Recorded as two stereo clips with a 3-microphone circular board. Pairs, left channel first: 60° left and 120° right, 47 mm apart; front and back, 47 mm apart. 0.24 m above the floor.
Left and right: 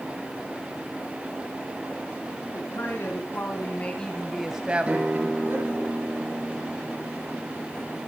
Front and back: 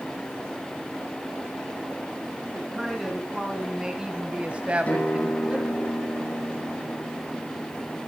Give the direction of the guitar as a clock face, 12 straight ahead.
2 o'clock.